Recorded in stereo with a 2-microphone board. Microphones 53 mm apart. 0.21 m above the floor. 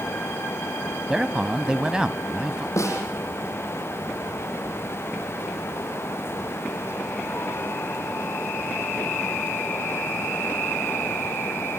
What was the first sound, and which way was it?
A man speaking, 15° right (ahead or behind).